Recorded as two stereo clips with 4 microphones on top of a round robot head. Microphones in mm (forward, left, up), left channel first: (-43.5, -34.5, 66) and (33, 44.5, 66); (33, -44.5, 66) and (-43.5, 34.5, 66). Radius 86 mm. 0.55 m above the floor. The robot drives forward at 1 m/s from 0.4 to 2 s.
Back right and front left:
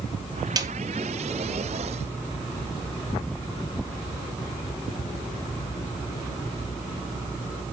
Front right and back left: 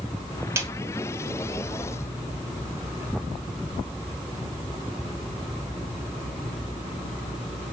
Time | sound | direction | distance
0.6 | a snare drum | 80° left | 0.9 m